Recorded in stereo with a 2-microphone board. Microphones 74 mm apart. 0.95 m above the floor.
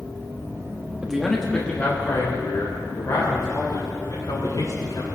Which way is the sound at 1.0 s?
10° right (ahead or behind).